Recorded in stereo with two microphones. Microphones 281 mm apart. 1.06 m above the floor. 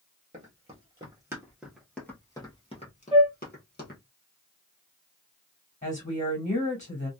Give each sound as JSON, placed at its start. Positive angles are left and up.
{"t": 0.3, "sound": "running footsteps", "side_deg": -25, "distance_m": 1.6}
{"t": 3.1, "sound": "a flute", "side_deg": -20, "distance_m": 1.2}
{"t": 5.8, "sound": "a woman speaking", "side_deg": 30, "distance_m": 1.9}